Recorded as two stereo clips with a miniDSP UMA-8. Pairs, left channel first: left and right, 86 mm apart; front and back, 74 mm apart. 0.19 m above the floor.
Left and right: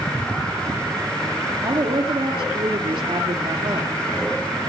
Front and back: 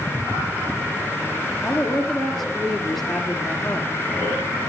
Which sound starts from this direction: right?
A woman speaking, at 1.6 s.